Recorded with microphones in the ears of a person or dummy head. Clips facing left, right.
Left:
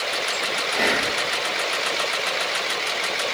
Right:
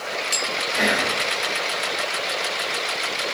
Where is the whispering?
Centre (ahead or behind), 1.7 m.